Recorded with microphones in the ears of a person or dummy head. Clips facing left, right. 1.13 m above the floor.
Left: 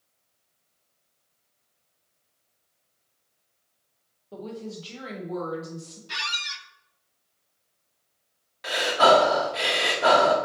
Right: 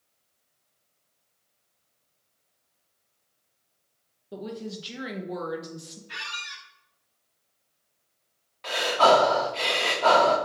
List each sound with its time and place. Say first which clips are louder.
4.3 s a woman speaking: right 1 dB; 15° right (ahead or behind), 0.8 m
6.1 s a squeak: left 4 dB; 60° left (ahead or behind), 0.6 m
8.6 s breathing: left 1 dB; 15° left (ahead or behind), 0.6 m